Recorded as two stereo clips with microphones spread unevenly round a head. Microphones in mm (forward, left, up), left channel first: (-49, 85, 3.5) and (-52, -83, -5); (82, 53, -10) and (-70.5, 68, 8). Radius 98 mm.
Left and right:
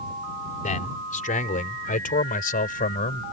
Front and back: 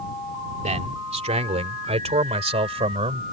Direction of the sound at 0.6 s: 130° left.